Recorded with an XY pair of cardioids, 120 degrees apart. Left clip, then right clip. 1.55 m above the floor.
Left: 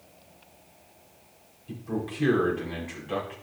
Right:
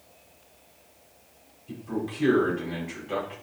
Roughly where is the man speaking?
Ahead.